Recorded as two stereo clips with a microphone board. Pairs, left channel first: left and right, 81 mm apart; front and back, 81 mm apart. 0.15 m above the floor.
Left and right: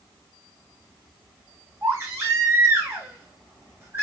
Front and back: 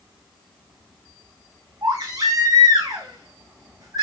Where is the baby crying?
150° right, 3 m.